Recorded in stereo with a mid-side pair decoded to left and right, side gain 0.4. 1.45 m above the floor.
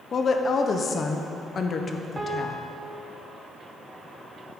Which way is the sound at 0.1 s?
50° left.